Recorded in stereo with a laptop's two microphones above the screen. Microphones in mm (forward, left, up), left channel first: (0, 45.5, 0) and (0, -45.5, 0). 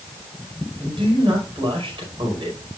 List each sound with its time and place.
0.8 s a man speaking: 70° right (ahead or behind), 5.5 m